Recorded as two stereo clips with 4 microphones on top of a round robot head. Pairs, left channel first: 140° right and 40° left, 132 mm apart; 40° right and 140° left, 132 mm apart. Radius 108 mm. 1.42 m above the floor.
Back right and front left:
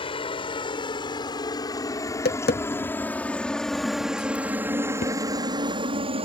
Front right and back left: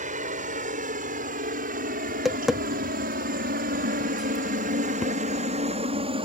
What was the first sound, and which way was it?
A helicopter, 170° left.